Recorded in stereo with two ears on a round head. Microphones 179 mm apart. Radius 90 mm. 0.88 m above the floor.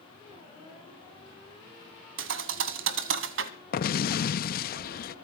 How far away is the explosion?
About 0.6 m.